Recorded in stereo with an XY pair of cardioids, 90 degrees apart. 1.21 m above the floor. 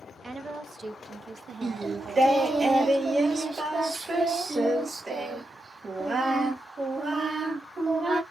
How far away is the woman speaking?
About 0.9 m.